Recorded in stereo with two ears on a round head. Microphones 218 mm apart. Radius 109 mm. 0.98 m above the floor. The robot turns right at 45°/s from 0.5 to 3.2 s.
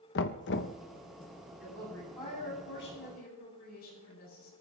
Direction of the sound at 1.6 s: 5° right.